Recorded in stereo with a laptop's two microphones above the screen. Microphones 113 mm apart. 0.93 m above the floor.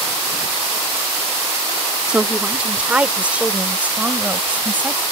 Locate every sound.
2.1 s a woman speaking: 10° right (ahead or behind); by 5.0 s 15° right (ahead or behind)